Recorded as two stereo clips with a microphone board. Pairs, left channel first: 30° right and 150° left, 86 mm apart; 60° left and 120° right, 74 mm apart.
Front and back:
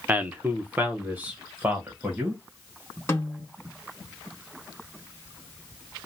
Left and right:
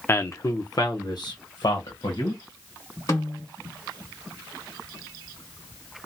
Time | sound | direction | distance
0.1 | a man speaking | 90° left | 0.5 m
3.1 | a snare drum | 30° left | 1.6 m